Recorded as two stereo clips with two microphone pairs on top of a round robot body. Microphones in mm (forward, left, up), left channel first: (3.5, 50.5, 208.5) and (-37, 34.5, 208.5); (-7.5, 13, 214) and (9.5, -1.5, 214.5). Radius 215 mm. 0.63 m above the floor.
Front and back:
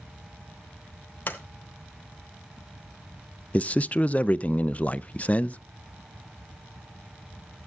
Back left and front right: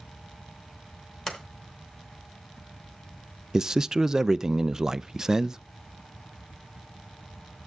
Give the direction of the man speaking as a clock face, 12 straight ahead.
12 o'clock.